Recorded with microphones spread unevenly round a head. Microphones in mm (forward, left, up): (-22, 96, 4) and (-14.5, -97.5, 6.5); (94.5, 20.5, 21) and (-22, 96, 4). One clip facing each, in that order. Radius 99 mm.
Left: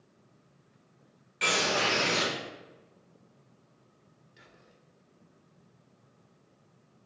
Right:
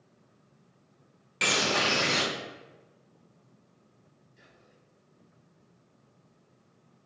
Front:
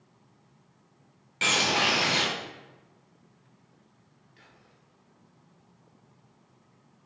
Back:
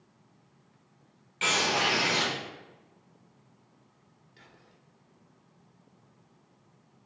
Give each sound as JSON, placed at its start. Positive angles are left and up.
{"t": 1.4, "sound": "a bird", "azimuth_deg": -75, "distance_m": 0.9}
{"t": 4.4, "sound": "whispering", "azimuth_deg": 95, "distance_m": 1.1}